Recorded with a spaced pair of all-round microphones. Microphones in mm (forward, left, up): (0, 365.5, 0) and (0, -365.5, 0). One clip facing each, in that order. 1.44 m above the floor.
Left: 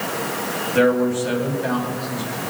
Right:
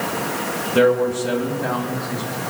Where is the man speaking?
60° right (ahead or behind), 2.5 m; by 2.4 s 75° right (ahead or behind), 3 m.